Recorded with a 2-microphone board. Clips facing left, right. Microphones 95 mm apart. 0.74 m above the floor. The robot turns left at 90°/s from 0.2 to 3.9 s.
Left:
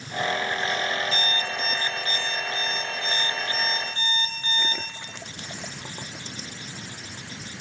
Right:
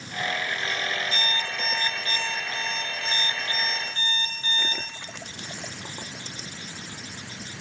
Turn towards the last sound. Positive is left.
turn(degrees=160)